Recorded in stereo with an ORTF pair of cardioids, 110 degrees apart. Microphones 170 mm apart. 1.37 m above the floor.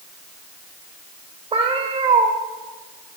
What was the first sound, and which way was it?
A cat meowing, 35° right.